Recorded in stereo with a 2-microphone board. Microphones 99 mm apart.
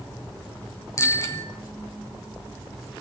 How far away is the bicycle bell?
About 2.5 m.